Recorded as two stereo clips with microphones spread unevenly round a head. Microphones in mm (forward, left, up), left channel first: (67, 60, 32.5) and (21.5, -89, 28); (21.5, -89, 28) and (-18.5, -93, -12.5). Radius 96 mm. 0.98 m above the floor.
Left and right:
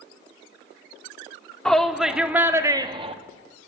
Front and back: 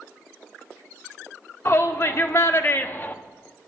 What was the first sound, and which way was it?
A shout, 10° right.